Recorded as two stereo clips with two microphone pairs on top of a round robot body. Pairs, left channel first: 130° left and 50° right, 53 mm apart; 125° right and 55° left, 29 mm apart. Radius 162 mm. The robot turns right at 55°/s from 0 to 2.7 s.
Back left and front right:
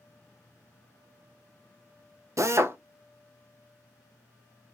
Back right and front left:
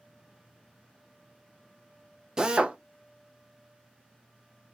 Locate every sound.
2.4 s a drill: 20° right, 0.6 m; by 2.8 s straight ahead, 0.6 m